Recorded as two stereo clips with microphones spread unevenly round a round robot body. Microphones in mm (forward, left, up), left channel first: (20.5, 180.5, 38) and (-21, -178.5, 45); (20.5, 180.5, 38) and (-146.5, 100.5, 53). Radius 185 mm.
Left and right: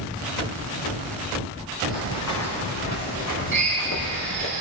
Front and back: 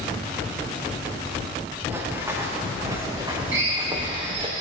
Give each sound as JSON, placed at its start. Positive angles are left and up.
{"t": 1.9, "sound": "running footsteps", "azimuth_deg": 130, "distance_m": 6.5}
{"t": 3.5, "sound": "a drill", "azimuth_deg": -155, "distance_m": 6.5}